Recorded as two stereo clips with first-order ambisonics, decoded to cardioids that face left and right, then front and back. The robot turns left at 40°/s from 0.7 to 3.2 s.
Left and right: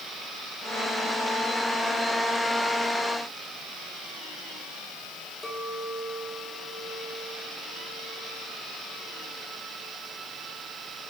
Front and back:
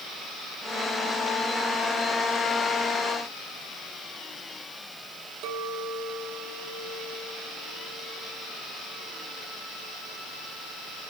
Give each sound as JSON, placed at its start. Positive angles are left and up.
{"t": 5.4, "sound": "a clink", "azimuth_deg": 170, "distance_m": 2.5}